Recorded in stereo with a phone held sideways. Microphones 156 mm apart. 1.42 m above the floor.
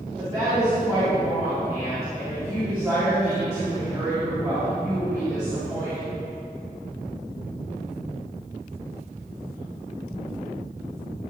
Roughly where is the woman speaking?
Right.